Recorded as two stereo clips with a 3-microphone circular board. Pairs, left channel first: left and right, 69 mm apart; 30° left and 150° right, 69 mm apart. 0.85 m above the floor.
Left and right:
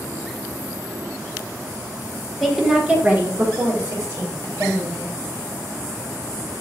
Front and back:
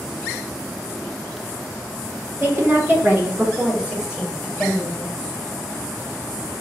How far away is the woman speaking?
About 1.2 m.